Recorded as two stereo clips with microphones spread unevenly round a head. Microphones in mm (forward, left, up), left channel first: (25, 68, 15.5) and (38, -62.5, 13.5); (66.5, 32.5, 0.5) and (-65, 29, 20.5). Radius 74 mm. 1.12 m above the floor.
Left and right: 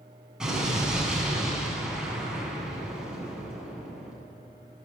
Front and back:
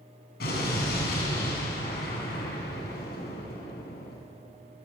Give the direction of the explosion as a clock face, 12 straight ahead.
12 o'clock.